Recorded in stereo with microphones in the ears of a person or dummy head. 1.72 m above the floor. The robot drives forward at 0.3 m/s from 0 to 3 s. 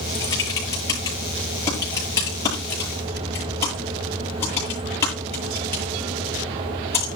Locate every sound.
0.1 s typing on a keyboard: 15° left (ahead or behind), 7.5 m